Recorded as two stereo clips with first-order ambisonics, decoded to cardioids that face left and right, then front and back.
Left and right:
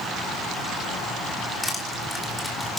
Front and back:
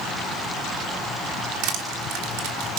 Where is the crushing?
175° left, 3 m.